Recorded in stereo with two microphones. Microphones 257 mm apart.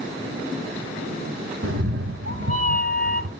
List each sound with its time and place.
1.6 s a cat meowing: 60° right (ahead or behind), 0.8 m